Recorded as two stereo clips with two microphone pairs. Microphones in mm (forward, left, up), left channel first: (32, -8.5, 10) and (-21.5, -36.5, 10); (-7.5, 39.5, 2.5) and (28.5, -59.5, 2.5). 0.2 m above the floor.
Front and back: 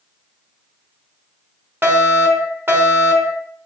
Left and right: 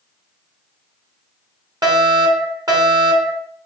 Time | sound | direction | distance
1.8 | a fire alarm | 105° right | 3.5 m